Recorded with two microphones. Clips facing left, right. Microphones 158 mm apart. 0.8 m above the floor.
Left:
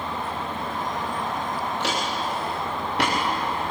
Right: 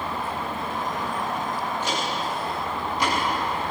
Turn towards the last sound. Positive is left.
turn(degrees=75)  # may be behind; listen again after turning